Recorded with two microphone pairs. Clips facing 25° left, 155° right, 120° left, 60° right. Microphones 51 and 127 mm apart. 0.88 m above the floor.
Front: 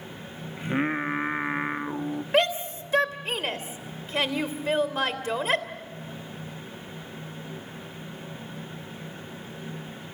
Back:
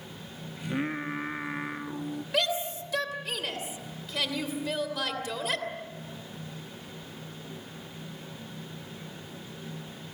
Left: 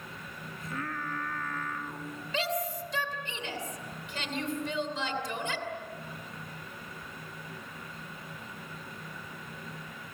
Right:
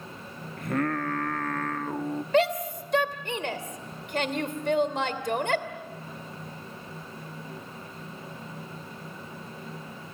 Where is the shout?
30° right, 2.5 m.